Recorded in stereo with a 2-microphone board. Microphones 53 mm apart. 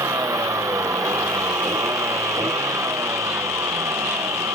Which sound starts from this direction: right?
A vehicle, at 0.0 s.